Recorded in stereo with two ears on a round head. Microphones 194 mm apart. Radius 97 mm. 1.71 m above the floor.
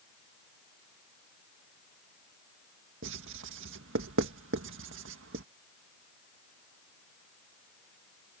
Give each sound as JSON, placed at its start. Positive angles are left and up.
{"t": 3.0, "sound": "writing", "side_deg": -60}